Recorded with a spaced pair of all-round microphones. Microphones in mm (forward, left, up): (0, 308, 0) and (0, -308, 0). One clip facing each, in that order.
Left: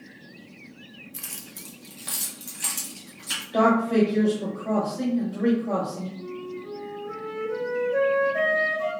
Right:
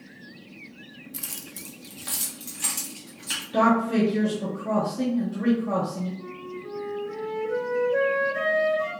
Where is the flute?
40° right (ahead or behind), 1.1 m.